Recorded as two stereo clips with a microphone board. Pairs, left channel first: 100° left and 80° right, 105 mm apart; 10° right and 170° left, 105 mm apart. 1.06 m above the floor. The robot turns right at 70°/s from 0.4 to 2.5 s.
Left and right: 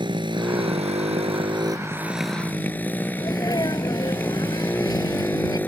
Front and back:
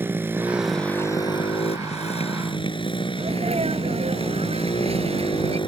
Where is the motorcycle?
120° right; by 5.7 s 25° left.